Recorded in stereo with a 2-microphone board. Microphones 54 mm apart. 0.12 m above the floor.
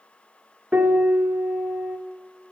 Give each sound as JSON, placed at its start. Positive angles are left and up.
{"t": 0.7, "sound": "a piano", "side_deg": -40, "distance_m": 0.7}